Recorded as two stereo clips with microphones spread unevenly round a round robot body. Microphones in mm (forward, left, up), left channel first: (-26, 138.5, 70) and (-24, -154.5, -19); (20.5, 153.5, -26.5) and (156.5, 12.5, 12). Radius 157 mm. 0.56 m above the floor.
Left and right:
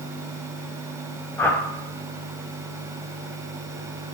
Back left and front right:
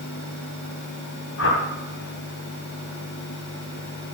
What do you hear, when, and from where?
1.4 s a whoosh: 175° left, 1.9 m